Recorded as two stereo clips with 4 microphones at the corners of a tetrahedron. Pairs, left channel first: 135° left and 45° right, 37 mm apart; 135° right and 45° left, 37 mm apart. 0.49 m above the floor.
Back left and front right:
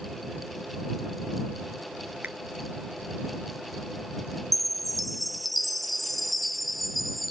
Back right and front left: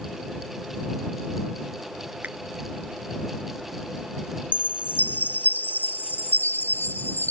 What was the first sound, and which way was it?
A finger snap, straight ahead.